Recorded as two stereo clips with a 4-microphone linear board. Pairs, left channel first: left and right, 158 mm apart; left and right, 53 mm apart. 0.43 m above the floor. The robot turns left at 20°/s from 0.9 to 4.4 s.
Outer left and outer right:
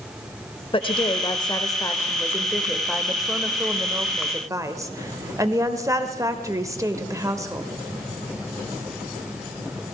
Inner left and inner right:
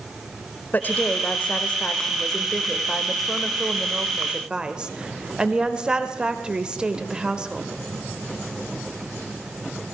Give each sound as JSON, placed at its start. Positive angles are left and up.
{"t": 0.7, "sound": "a woman speaking", "azimuth_deg": 45, "distance_m": 1.2}